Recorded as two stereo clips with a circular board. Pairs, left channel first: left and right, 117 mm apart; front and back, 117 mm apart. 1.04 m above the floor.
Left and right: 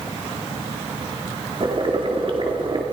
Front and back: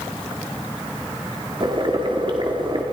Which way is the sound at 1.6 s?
135° right.